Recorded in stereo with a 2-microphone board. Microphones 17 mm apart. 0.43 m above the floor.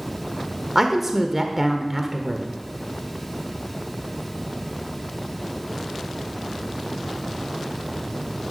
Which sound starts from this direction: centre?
A woman speaking, at 0.8 s.